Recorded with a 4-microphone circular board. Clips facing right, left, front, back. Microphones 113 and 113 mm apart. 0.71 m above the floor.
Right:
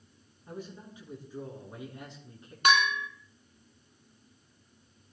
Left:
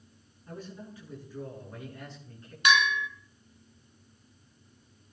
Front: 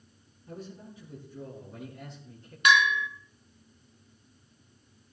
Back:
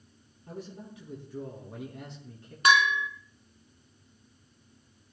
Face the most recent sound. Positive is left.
turn(degrees=-130)